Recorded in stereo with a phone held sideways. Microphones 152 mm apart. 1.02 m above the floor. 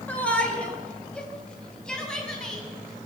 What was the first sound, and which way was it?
A shout, 10° left (ahead or behind).